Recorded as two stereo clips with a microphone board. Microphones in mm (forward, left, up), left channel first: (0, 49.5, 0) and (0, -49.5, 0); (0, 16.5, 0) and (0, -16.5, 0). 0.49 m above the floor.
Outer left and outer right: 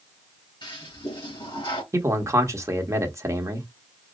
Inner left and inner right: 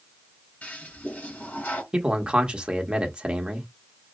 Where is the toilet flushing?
55° left (ahead or behind), 3 m.